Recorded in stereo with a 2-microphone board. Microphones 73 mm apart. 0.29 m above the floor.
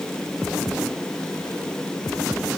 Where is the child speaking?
No child speaking in this recording.